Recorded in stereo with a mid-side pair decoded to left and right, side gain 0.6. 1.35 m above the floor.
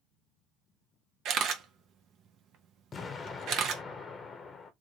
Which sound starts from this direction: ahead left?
An explosion, at 2.9 s.